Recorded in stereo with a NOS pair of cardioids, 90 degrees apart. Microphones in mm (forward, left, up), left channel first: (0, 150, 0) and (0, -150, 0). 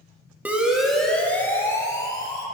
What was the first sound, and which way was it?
A siren, 5° right.